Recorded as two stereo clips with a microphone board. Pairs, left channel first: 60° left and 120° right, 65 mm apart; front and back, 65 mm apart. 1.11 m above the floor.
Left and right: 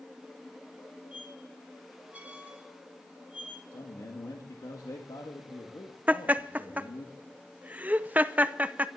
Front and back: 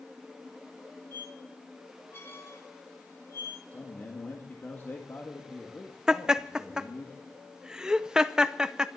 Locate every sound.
1.1 s a squeak: 55° right, 4 m
3.7 s a man speaking: 60° left, 1.9 m
6.1 s laughter: 115° right, 0.7 m